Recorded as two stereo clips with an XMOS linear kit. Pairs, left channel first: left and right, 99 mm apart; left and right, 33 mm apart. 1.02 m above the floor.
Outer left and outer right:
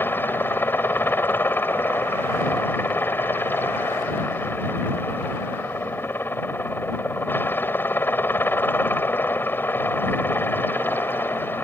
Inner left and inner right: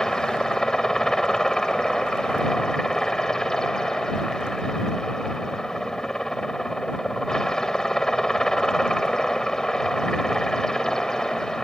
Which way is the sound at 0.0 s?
20° left (ahead or behind).